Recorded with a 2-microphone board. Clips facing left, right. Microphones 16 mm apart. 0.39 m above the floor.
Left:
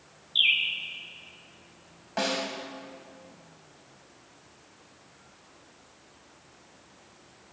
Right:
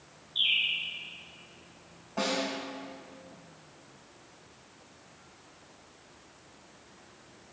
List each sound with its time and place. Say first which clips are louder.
0.3 s a bird: left 4 dB; 70° left (ahead or behind), 2.0 m
2.2 s a snare drum: left 1 dB; 55° left (ahead or behind), 2.5 m